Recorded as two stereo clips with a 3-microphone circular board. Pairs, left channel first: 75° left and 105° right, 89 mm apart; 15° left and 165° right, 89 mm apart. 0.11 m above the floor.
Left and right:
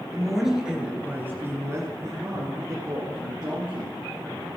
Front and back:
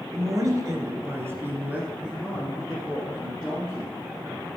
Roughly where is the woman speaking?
Behind.